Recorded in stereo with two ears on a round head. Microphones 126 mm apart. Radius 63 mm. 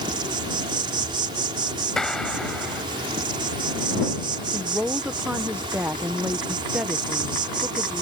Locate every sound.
0.0 s an insect: 35° right (ahead or behind)
2.0 s a clap: 5° left (ahead or behind)
4.5 s a woman speaking: 10° right (ahead or behind)